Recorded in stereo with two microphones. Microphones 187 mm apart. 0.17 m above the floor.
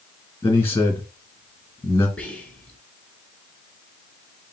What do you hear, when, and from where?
0.4 s a man speaking: 15° left (ahead or behind), 2 m
2.2 s whispering: 10° left (ahead or behind), 1.4 m